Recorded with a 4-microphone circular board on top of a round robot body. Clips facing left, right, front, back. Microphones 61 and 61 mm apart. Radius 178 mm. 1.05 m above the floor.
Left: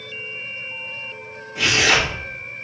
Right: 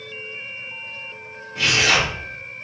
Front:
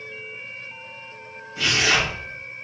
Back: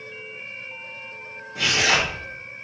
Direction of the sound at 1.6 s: 175° left.